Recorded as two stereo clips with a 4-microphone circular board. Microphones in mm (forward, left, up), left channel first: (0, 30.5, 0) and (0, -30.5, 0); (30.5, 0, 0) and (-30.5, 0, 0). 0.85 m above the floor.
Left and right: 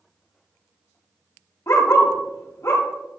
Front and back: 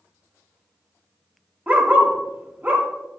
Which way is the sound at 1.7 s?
120° left.